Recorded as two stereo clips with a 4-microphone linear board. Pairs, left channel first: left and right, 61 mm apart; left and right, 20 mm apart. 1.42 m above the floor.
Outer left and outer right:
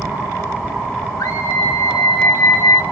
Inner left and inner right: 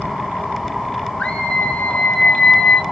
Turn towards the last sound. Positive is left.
turn(degrees=70)  # may be behind; listen again after turning